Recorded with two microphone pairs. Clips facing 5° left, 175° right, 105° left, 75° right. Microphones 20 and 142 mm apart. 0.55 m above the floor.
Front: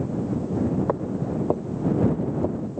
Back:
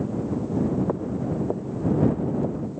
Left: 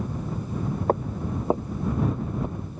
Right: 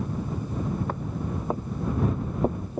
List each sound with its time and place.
0.9 s footsteps: 65° left; by 2.8 s 65° right